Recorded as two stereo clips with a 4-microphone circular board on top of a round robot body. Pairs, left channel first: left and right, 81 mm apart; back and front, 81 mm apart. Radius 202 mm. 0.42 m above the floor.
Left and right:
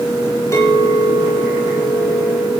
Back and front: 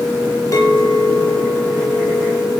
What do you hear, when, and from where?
0.5 s a clink: 140° left, 8 m